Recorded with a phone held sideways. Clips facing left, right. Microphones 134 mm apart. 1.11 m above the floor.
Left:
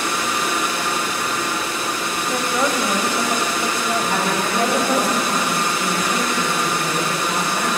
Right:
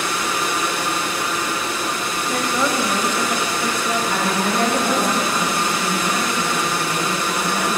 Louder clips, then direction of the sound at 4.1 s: Even; 20° left (ahead or behind).